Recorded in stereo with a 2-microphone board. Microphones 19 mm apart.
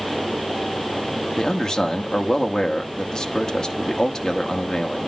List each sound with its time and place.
1.4 s a man speaking: 35° left (ahead or behind), 1.0 m